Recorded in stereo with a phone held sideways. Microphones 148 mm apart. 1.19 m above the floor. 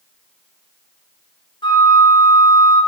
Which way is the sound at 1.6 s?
30° left (ahead or behind).